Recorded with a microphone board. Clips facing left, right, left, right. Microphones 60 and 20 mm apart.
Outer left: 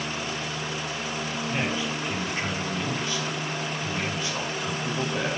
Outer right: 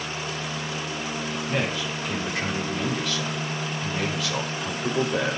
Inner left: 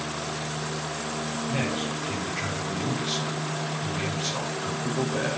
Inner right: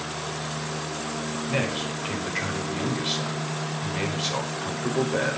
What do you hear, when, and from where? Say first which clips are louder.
1.5 s a man speaking: outer right 1 dB, inner right 2 dB; 80° right, 5 m